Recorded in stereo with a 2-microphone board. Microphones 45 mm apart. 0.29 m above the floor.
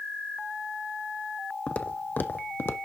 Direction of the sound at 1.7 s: 30° left (ahead or behind).